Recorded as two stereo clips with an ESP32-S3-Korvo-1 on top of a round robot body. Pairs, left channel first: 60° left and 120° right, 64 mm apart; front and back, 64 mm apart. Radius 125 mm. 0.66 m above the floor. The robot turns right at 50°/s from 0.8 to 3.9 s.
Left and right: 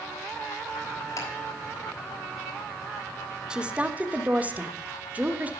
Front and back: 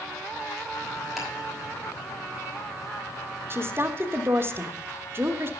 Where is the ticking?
90° left, 4 m; by 1.3 s 95° left, 4 m.